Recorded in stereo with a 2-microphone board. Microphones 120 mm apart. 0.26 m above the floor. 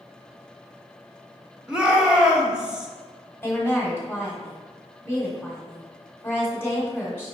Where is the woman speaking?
20° left (ahead or behind), 1.2 m.